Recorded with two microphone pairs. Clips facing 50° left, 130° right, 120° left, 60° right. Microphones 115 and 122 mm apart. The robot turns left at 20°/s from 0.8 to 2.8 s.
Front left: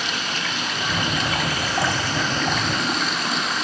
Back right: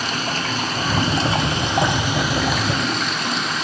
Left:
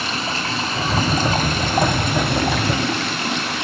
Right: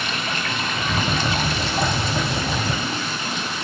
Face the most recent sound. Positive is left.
turn(degrees=135)